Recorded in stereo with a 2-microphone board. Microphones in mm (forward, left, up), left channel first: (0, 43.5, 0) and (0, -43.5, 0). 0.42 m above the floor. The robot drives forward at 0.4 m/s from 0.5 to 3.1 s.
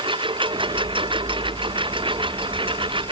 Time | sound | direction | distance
0.0 | a lawn mower | 75° right (ahead or behind) | ?